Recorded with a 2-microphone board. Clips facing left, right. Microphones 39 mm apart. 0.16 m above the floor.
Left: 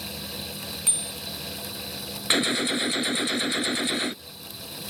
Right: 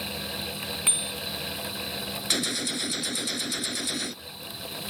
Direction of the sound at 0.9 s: 35° right (ahead or behind).